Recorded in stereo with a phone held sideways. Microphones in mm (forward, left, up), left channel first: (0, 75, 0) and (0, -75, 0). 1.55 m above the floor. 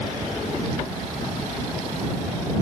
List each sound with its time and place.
Only background noise.